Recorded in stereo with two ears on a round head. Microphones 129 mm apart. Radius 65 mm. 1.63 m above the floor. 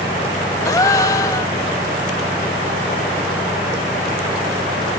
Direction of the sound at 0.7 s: 25° left (ahead or behind).